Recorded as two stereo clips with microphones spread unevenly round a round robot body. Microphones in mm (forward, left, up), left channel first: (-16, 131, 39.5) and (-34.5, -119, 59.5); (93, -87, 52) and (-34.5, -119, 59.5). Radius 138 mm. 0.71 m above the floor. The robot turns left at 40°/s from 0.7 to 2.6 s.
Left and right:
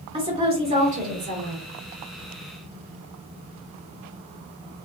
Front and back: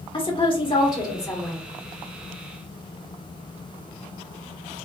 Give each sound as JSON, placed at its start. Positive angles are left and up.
{"t": 0.1, "sound": "a woman speaking", "azimuth_deg": -25, "distance_m": 1.9}